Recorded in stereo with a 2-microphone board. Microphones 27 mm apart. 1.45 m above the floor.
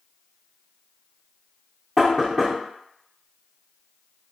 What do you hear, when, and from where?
2.0 s knocking: 10° right (ahead or behind), 0.7 m